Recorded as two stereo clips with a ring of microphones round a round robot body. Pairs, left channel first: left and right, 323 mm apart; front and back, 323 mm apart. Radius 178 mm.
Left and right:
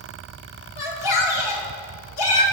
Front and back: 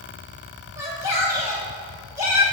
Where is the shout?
100° left, 2.5 m.